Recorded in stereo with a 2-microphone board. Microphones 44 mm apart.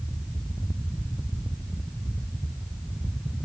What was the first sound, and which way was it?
Only background noise.